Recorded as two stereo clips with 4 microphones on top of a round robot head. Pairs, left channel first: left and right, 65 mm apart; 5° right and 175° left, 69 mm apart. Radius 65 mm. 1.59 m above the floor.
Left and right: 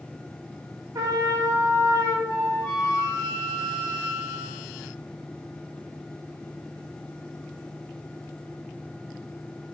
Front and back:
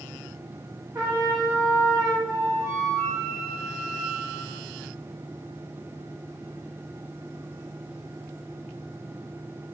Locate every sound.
0.9 s a trumpet: 125° right, 2.5 m
2.3 s a flute: 85° right, 2.5 m